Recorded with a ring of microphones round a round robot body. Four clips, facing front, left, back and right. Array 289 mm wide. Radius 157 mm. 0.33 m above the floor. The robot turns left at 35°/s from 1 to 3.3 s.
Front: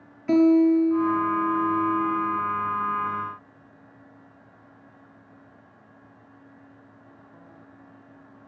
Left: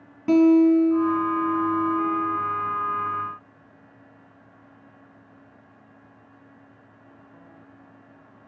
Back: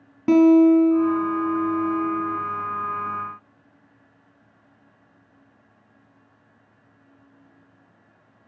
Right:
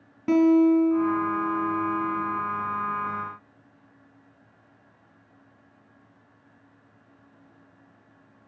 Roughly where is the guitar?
Behind.